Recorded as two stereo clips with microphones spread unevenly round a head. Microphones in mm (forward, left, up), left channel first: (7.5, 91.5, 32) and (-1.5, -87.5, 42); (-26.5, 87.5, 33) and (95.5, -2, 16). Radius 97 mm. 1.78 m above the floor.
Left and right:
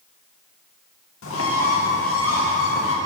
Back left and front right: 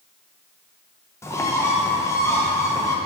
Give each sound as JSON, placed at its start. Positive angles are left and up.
{"t": 1.2, "sound": "a bird", "azimuth_deg": 75, "distance_m": 0.9}